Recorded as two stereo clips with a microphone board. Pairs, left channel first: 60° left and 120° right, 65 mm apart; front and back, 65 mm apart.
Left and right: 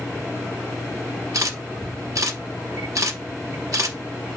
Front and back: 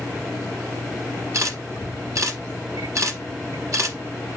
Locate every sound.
1.3 s a camera shutter: 145° right, 1.5 m